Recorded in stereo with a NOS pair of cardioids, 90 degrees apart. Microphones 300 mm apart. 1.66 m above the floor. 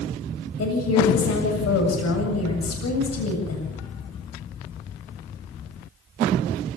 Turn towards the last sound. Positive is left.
turn(degrees=55)